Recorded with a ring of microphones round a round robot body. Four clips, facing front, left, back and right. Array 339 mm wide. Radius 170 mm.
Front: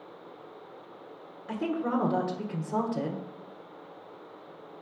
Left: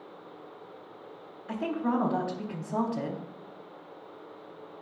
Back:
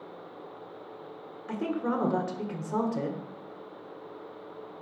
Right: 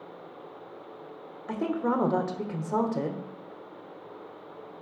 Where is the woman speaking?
95° right, 1.6 m.